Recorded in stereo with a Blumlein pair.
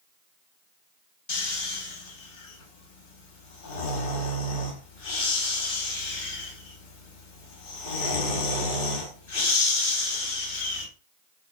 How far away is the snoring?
About 1.3 m.